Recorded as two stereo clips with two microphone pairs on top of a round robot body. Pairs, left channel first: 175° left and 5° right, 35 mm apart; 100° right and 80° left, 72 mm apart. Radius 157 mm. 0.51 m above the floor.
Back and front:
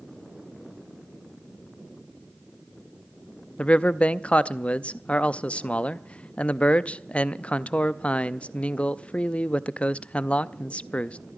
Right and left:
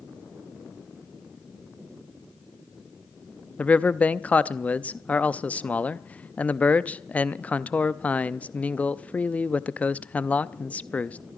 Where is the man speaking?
165° right, 0.7 m.